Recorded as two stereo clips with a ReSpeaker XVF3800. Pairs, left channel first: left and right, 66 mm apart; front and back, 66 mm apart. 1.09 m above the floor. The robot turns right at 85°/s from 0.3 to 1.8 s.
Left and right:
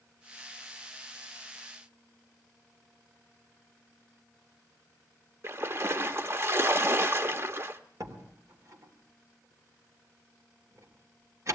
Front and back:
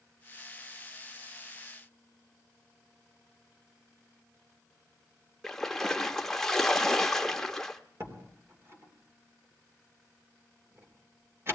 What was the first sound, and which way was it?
A splash, 80° right.